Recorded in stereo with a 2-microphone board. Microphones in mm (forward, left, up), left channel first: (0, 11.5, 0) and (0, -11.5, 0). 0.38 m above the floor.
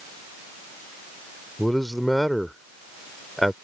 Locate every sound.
1.6 s a man speaking: 5° left (ahead or behind)